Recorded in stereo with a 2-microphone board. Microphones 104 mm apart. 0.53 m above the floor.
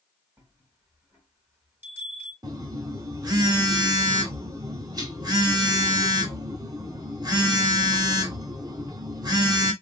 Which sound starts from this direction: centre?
A bell, at 0.4 s.